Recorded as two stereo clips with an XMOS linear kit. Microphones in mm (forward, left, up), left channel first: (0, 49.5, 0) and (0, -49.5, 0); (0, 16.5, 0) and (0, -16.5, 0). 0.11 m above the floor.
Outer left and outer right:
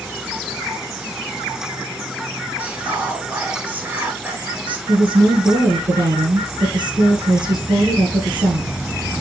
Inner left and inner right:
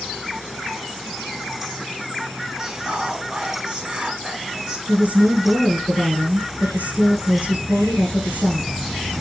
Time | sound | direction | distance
2.6 | whispering | 15° right (ahead or behind) | 1.6 m
4.9 | a woman speaking | 50° right (ahead or behind) | 1.9 m